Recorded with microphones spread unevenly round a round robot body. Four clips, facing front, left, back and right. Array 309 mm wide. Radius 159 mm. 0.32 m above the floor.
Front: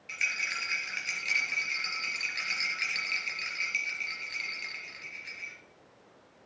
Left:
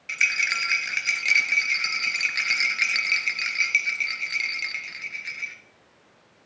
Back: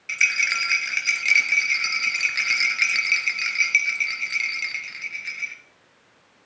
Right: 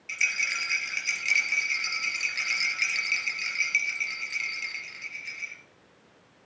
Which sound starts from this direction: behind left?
A rattle, at 0.1 s.